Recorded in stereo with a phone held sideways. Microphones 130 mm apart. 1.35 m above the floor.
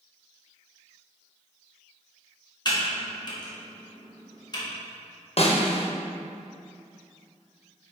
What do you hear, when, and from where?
2.6 s typing on a keyboard: 35° left (ahead or behind), 1.6 m
5.4 s a snare drum: 50° left (ahead or behind), 0.8 m